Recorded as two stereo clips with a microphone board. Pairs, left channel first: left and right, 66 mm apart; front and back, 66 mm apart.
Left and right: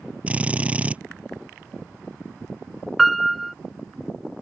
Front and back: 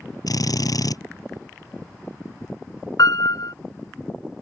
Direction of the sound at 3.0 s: Straight ahead.